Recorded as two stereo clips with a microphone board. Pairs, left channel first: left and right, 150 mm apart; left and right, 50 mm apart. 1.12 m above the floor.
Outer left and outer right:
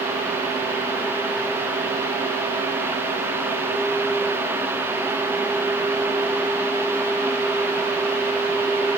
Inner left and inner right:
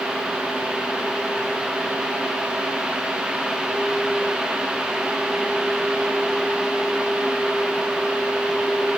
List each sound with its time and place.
Only background noise.